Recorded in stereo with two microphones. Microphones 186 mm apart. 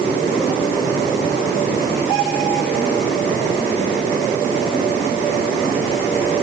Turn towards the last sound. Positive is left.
No sound to turn to.